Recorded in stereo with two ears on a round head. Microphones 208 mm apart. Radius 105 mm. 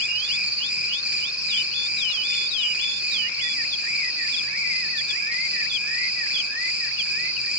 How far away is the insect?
About 2 m.